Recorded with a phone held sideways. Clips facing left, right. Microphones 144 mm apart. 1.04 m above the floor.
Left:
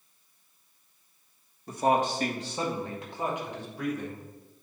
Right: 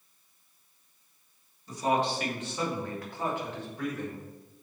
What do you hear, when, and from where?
1.7 s a man speaking: 55° left (ahead or behind), 1.6 m; by 4.2 s 10° left (ahead or behind), 4 m